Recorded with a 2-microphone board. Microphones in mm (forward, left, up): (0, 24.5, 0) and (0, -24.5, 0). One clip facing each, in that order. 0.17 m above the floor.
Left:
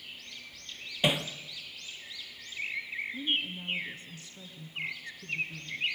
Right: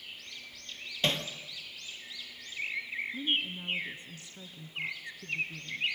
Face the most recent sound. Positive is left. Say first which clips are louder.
# even
turn(degrees=-20)  # may be behind; listen again after turning